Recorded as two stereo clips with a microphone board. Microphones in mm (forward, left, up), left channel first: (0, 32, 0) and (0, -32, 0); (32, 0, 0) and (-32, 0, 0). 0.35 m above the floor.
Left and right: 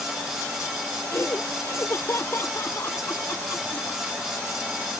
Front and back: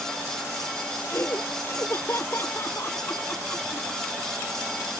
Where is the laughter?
45° left.